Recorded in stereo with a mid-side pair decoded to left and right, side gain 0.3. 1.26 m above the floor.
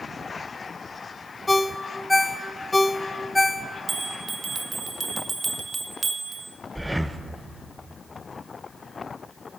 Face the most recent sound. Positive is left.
turn(degrees=-5)